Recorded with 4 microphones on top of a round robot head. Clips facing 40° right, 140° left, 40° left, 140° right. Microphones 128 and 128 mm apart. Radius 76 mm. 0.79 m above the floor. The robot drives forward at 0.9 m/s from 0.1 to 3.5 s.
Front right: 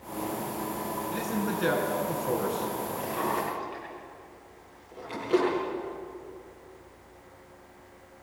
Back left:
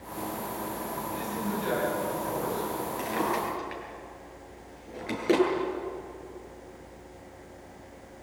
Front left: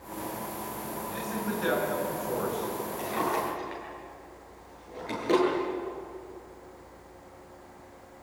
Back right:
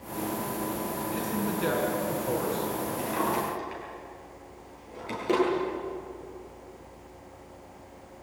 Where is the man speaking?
70° right, 7.5 m; by 2.9 s 80° right, 7 m.